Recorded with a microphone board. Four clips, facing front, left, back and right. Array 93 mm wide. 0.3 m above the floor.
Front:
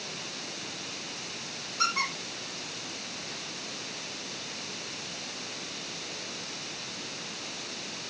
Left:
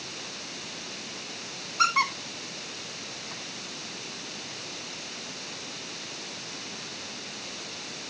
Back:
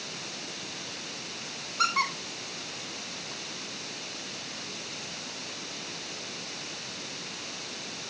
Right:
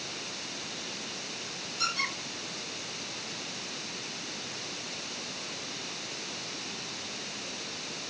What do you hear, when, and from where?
1.8 s a squeak: 105° left, 7 m